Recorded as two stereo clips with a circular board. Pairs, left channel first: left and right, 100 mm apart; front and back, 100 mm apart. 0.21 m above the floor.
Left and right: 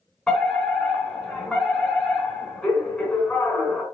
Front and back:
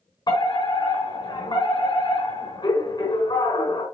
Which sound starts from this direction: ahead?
A fire alarm, at 0.3 s.